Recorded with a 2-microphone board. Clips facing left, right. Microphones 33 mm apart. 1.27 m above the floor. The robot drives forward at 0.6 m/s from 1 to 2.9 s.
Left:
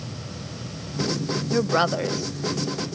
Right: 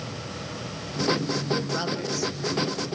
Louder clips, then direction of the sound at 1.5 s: Left 10 dB; 50° left (ahead or behind).